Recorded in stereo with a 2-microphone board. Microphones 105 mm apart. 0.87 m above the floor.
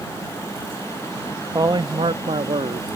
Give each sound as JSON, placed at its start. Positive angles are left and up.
{"t": 1.5, "sound": "a man speaking", "side_deg": -35}